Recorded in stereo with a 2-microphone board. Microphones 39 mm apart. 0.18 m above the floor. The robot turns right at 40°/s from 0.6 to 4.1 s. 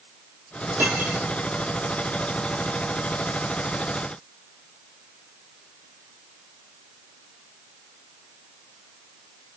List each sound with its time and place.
0.8 s cutlery clinking: 65° right (ahead or behind), 5 m; by 1.2 s 50° right (ahead or behind), 5 m